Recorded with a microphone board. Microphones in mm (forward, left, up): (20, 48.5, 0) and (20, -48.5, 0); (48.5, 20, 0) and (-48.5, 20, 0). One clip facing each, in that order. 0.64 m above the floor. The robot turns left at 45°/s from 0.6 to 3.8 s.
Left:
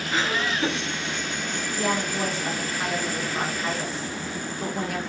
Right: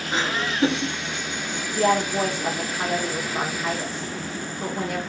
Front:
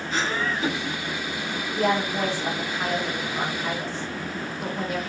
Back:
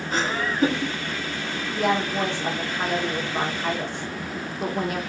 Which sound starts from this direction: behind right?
Laughter, at 0.1 s.